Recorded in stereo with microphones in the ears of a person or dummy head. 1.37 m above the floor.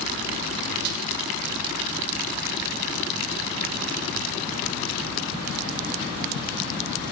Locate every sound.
0.8 s a snare drum: 55° right (ahead or behind), 1.4 m